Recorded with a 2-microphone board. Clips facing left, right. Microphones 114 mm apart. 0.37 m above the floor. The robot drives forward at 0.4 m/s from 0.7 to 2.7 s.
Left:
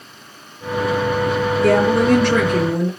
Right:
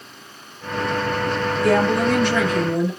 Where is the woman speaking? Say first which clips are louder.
Left 3 dB; 65° left (ahead or behind), 5.5 m; by 2.9 s 60° left (ahead or behind), 5.5 m.